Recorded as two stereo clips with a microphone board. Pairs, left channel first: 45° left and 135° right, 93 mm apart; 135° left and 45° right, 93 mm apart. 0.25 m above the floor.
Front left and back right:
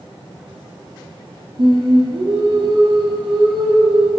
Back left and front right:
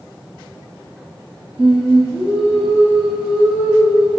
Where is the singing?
120° right, 2 m.